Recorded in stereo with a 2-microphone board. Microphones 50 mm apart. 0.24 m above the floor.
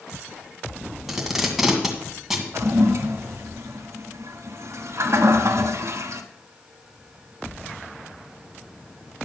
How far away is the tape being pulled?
About 2.0 m.